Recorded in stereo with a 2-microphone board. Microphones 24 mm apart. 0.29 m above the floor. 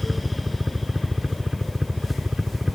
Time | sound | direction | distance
0.0 | a helicopter | 35° right (ahead or behind) | ?